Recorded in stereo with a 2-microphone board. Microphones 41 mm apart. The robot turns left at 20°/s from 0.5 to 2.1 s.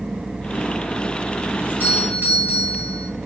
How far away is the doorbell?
About 3 m.